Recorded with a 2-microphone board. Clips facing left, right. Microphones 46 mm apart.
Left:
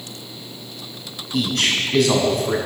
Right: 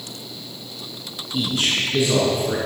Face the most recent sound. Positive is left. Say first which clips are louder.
# left 2 dB
turn(degrees=70)  # may be behind; listen again after turning